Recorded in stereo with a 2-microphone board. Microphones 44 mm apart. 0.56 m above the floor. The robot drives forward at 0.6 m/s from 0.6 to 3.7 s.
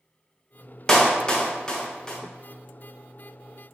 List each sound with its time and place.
0.9 s a clap: 15° left (ahead or behind), 0.8 m